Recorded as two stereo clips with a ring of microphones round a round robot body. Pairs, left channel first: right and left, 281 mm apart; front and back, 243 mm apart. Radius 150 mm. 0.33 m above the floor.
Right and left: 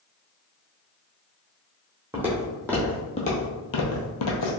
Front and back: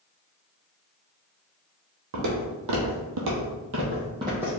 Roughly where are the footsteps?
Behind.